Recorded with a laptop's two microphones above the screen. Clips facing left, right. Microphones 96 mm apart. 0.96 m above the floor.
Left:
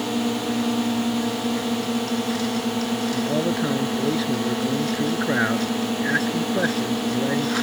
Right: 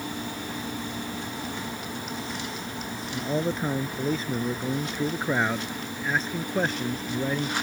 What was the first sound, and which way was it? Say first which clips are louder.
A drone: left 10 dB; 80° left.